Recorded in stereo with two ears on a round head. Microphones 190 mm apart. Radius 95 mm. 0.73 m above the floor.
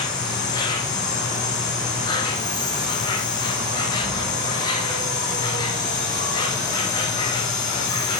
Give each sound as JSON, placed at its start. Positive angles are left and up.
{"t": 0.0, "sound": "an insect", "side_deg": 20, "distance_m": 5.0}